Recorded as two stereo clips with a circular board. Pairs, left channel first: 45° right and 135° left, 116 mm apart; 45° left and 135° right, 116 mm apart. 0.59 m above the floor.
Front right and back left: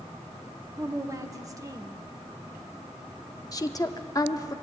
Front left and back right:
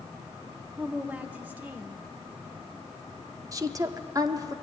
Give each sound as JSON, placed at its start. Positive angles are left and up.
{"t": 0.8, "sound": "a woman speaking", "azimuth_deg": 160, "distance_m": 0.9}
{"t": 3.5, "sound": "a woman speaking", "azimuth_deg": -90, "distance_m": 0.7}